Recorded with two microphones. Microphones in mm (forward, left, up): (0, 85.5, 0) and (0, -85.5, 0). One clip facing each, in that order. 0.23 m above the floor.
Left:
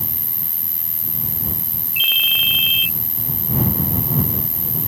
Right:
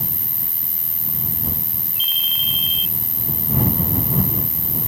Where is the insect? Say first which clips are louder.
Right 1 dB; centre (ahead or behind).